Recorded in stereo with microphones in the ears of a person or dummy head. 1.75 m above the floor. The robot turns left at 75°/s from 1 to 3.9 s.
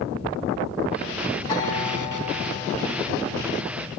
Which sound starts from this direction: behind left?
A guitar, at 1.5 s.